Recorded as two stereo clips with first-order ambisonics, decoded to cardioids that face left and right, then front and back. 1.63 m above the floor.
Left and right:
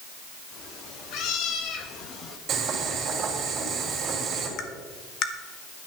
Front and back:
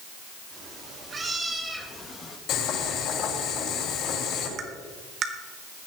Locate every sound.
0.5 s a cat meowing: 125° left, 2 m; by 2.4 s 45° left, 1.1 m
2.5 s boiling: 35° right, 4 m
4.6 s tapping: 125° left, 1.1 m